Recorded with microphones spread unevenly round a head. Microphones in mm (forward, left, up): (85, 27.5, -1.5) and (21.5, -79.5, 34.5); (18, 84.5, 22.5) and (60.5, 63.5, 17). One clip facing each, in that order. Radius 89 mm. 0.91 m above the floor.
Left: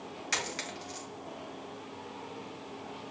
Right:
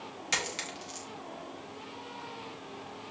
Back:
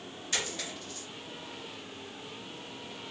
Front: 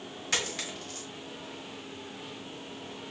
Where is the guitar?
No guitar in this recording.